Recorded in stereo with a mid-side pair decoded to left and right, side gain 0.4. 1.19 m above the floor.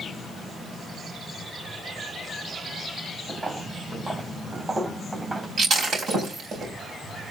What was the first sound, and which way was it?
Footsteps, 25° right.